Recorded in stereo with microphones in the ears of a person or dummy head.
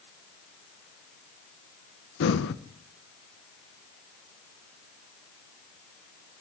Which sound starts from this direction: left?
Breathing, at 2.2 s.